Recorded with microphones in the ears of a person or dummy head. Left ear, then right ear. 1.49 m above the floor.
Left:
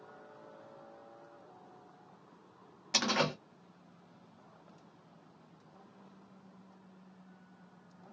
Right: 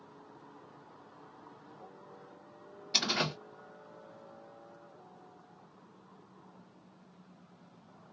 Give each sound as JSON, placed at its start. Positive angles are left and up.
{"t": 2.9, "sound": "a door slam", "side_deg": 45, "distance_m": 1.7}